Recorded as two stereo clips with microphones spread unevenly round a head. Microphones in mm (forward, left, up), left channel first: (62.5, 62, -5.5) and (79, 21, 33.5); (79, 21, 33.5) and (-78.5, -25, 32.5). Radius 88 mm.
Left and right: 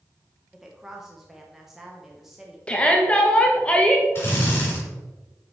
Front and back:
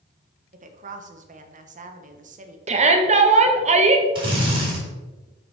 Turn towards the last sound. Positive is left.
turn(degrees=135)